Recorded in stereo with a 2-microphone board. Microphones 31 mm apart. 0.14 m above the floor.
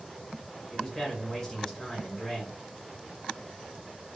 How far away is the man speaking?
About 1.4 m.